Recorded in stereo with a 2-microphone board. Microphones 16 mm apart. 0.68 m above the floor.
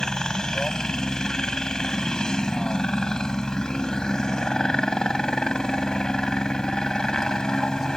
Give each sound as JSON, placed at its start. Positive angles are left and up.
{"t": 0.0, "sound": "a helicopter", "side_deg": 50}